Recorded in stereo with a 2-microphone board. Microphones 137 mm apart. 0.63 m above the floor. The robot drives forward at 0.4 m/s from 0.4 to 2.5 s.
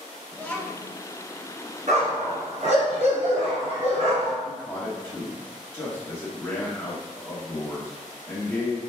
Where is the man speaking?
15° left (ahead or behind), 1.0 m.